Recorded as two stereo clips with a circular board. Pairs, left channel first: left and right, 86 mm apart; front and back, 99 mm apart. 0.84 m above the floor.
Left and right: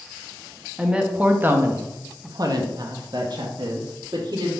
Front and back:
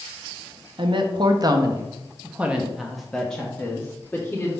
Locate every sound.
0.8 s a woman speaking: 170° right, 1.0 m; by 4.5 s 65° right, 1.6 m